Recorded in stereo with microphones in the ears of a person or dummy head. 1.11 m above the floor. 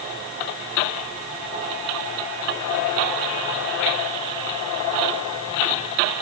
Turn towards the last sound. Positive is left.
No sound to turn to.